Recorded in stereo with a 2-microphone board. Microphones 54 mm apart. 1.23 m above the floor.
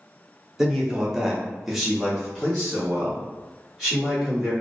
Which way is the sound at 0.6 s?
10° right (ahead or behind).